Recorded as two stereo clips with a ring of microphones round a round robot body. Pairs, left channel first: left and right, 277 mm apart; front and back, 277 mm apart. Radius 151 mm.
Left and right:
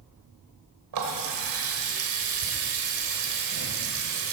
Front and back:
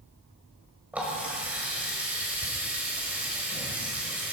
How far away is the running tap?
About 1.5 m.